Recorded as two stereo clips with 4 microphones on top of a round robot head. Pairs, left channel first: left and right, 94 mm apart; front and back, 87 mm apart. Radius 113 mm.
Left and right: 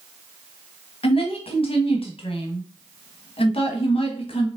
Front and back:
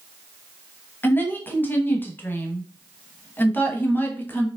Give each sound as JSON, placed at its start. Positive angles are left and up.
{"t": 1.0, "sound": "a woman speaking", "azimuth_deg": 70, "distance_m": 1.1}